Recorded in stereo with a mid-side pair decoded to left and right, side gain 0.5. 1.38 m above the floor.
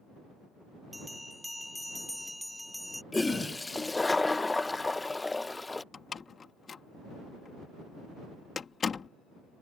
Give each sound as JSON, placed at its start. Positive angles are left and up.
{"t": 0.9, "sound": "a bell", "azimuth_deg": 5}
{"t": 3.1, "sound": "a toilet flushing", "azimuth_deg": 15}
{"t": 5.9, "sound": "a door slam", "azimuth_deg": 35}